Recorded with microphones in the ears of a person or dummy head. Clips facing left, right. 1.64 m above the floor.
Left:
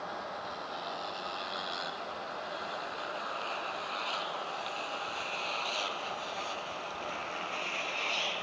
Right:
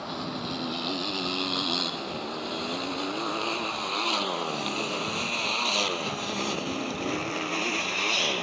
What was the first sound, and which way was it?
A motorcycle, 85° right.